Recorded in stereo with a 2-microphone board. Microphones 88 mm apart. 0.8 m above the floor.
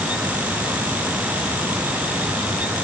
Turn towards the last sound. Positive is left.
No sound to turn to.